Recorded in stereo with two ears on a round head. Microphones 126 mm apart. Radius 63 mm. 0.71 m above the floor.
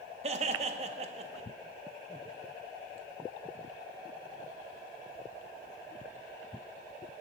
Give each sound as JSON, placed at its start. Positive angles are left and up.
{"t": 0.2, "sound": "laughter", "side_deg": -45, "distance_m": 0.6}